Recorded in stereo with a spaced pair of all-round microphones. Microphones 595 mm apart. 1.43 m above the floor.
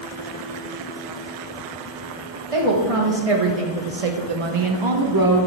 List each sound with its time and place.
2.5 s a woman speaking: 60° right (ahead or behind), 1.4 m; by 5.5 s 30° right (ahead or behind), 0.8 m